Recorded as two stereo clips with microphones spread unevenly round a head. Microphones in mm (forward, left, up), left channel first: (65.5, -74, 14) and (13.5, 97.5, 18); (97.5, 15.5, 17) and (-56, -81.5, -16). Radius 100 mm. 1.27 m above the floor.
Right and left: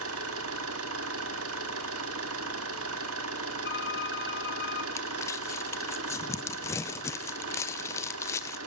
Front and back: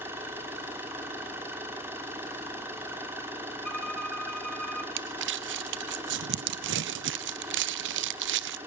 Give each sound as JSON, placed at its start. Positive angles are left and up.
{"t": 0.0, "sound": "an engine running", "azimuth_deg": 130, "distance_m": 2.0}
{"t": 3.6, "sound": "a violin", "azimuth_deg": -55, "distance_m": 2.5}
{"t": 5.0, "sound": "crumpling", "azimuth_deg": -150, "distance_m": 0.5}